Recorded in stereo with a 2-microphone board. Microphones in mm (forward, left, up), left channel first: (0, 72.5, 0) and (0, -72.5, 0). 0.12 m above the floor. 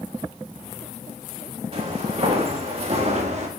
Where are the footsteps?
40° right (ahead or behind), 6 m; by 3.5 s 50° right (ahead or behind), 4 m.